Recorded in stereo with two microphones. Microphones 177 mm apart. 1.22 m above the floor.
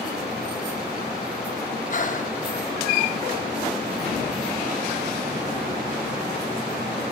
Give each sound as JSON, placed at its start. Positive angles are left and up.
{"t": 1.9, "sound": "breathing", "side_deg": 45, "distance_m": 1.0}